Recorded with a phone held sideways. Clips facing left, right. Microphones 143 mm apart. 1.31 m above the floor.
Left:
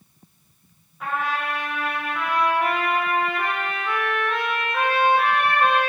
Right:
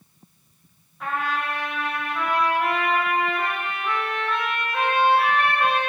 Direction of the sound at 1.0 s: Centre (ahead or behind).